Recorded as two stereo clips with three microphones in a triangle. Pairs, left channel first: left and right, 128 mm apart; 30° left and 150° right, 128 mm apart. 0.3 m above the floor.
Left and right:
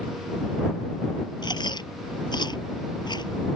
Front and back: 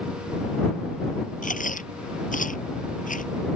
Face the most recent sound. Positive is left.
turn(degrees=35)